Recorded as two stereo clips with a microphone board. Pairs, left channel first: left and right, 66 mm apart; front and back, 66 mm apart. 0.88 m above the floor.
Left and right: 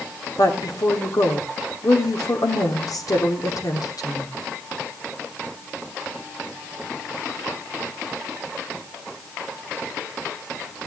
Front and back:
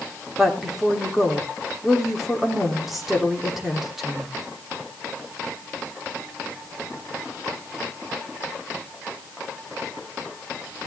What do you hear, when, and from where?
0.4 s a woman speaking: 95° left, 3 m